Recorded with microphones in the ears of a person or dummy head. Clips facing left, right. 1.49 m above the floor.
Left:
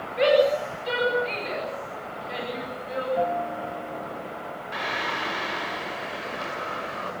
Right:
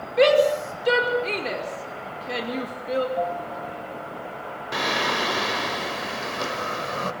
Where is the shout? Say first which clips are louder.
Right 2 dB; 80° right, 5 m.